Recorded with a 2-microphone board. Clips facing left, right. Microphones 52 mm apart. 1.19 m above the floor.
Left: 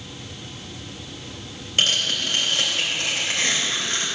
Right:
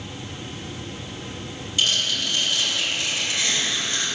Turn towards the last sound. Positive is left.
turn(degrees=50)  # may be behind; listen again after turning